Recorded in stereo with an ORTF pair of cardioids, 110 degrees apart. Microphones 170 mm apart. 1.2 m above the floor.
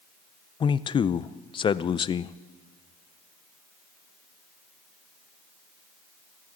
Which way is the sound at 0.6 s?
30° left.